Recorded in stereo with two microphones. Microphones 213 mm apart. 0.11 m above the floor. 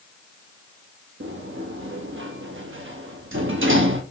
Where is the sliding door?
70° right (ahead or behind), 0.7 m.